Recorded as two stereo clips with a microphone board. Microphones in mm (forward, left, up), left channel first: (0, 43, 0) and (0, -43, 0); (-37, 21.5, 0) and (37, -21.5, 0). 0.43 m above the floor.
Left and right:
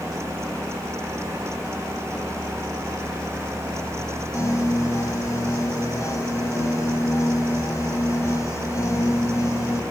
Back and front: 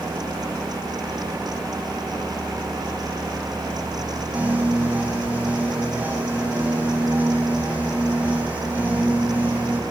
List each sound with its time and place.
4.3 s a piano: 40° left, 3.5 m